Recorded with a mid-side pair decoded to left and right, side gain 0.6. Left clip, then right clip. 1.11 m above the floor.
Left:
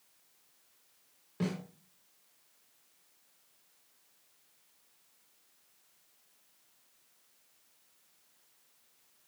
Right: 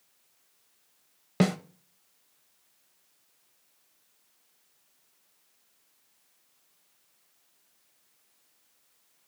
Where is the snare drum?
70° right, 0.9 m.